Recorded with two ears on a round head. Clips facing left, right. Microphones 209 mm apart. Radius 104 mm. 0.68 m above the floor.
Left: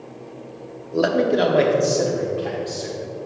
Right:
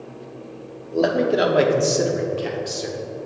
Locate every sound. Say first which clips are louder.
0.9 s a man speaking: even; 10° left (ahead or behind), 0.9 m; by 3.0 s 50° right (ahead or behind), 1.5 m